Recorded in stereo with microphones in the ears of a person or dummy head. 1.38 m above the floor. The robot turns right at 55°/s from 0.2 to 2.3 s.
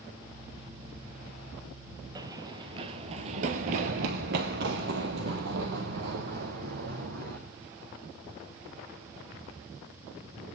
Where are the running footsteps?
20° right (ahead or behind), 1.6 m; by 7.4 s 45° right (ahead or behind), 3 m.